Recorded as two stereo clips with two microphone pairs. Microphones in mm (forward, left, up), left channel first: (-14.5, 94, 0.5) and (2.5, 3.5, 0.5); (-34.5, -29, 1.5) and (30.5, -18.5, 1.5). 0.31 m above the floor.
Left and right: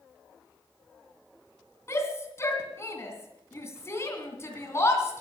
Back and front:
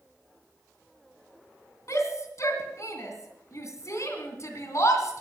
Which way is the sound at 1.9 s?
155° left.